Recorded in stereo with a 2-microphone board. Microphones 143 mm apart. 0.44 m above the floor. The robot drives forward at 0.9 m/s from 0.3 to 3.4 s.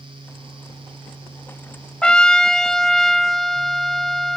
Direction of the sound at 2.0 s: 5° left (ahead or behind).